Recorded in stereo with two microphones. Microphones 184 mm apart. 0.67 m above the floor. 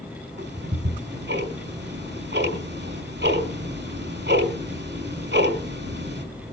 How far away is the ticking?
About 4.5 m.